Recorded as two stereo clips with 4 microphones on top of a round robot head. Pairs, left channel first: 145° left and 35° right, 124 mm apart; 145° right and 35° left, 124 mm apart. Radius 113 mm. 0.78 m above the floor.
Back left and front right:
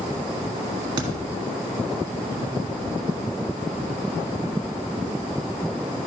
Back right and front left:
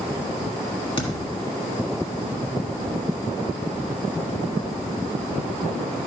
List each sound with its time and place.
1.0 s a thud: 90° right, 1.4 m